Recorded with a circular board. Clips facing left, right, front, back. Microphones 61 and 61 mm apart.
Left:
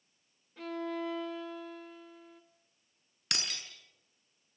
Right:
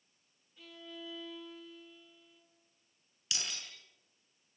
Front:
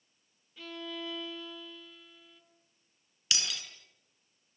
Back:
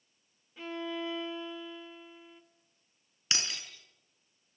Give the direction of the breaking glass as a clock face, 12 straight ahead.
8 o'clock.